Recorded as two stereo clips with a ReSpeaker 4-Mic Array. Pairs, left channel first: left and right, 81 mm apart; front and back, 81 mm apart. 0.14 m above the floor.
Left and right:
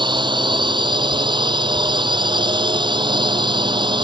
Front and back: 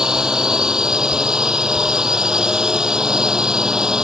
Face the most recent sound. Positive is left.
turn(degrees=-100)